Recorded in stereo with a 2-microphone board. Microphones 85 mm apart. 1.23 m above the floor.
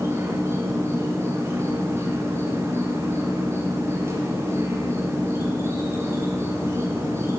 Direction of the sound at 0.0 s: 30° right (ahead or behind).